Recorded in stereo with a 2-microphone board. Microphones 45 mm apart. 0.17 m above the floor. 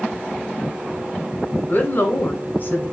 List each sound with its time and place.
1.7 s a woman speaking: 50° left (ahead or behind), 1.6 m